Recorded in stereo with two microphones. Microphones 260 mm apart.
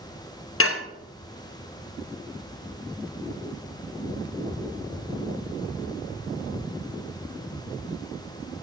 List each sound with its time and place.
0.6 s dishes clattering: 60° left (ahead or behind), 0.5 m